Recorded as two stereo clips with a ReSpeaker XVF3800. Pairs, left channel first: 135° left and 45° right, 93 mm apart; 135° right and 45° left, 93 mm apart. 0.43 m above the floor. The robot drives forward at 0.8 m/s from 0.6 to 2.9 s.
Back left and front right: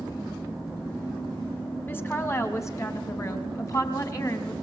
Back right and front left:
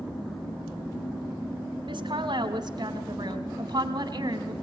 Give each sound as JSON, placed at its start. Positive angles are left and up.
{"t": 1.9, "sound": "a woman speaking", "azimuth_deg": 70, "distance_m": 3.5}